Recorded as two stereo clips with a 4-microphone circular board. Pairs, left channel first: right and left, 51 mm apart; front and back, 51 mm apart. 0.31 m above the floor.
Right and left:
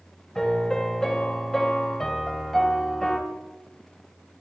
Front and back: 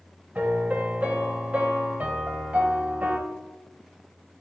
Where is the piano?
160° right, 1.7 m.